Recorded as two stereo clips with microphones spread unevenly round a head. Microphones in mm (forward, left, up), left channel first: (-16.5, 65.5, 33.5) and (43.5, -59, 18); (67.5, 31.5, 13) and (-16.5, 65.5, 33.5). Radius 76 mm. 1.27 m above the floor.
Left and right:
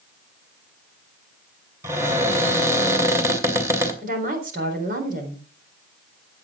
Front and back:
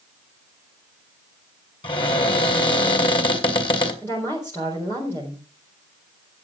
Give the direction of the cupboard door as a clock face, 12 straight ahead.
12 o'clock.